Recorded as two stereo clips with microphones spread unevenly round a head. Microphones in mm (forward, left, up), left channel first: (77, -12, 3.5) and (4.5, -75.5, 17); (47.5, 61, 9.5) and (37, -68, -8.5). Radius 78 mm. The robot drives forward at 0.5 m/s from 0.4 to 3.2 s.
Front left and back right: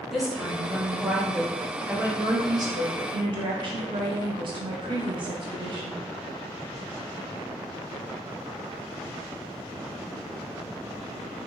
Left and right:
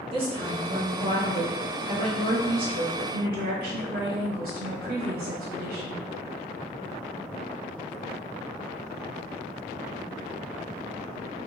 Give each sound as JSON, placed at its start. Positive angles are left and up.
{"t": 0.1, "sound": "a woman speaking", "azimuth_deg": -50, "distance_m": 1.7}